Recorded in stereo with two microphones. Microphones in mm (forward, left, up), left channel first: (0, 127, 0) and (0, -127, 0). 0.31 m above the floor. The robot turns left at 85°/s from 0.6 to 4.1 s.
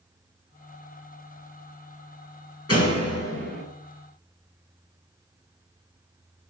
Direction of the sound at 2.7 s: 110° left.